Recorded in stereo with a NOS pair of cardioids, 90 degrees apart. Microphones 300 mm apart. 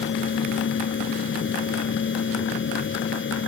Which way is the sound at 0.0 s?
40° left.